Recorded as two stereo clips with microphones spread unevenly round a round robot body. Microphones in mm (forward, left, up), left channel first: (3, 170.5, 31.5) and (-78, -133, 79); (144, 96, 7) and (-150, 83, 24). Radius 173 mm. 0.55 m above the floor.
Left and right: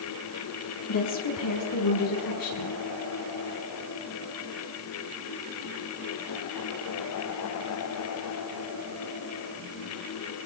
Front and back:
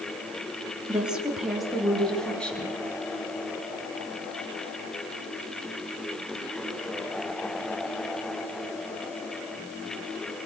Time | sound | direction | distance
0.9 | a woman speaking | 95° left | 8.5 m